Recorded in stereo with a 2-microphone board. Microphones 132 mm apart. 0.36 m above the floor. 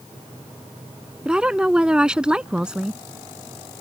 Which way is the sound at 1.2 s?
5° right (ahead or behind).